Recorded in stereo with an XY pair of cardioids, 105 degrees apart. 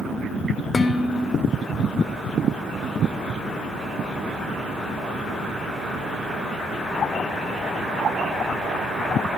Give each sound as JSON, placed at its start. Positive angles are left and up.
{"t": 0.7, "sound": "dishes clattering", "azimuth_deg": 35, "distance_m": 1.6}